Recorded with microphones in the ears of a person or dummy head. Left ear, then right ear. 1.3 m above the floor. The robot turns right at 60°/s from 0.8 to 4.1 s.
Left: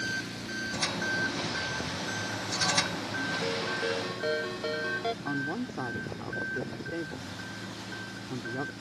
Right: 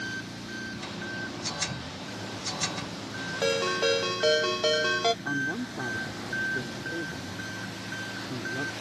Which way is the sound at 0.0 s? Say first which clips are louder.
Left 2 dB; 15° left.